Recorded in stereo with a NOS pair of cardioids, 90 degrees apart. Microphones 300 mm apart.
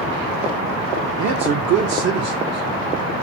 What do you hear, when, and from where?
1.2 s a man speaking: 65° right, 1.0 m; by 3.2 s 55° right, 2 m